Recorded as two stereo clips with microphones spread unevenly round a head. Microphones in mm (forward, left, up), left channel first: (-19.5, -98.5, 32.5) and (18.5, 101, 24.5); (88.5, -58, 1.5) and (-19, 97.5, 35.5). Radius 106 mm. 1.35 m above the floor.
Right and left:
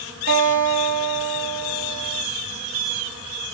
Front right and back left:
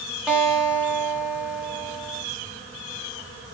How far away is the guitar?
About 1.5 m.